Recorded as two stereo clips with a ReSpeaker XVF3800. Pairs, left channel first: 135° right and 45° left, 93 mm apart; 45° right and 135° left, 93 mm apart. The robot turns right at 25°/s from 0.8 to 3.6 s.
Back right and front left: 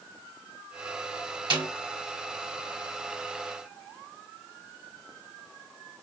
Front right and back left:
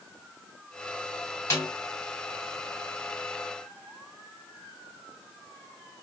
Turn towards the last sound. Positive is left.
turn(degrees=65)